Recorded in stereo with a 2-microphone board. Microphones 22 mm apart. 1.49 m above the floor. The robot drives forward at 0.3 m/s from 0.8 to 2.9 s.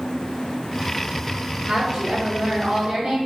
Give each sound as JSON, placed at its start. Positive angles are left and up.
{"t": 1.7, "sound": "a woman speaking", "side_deg": -70, "distance_m": 1.9}